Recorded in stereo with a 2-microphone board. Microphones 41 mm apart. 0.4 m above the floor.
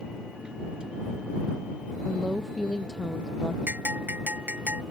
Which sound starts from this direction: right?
A bell, at 3.7 s.